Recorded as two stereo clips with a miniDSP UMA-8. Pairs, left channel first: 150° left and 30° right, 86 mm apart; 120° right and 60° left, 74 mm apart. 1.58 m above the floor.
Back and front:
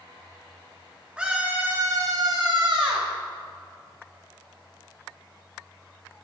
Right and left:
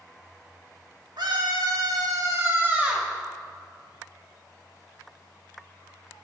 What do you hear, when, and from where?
1.2 s a scream: 50° left, 2.5 m; by 3.1 s 20° right, 2 m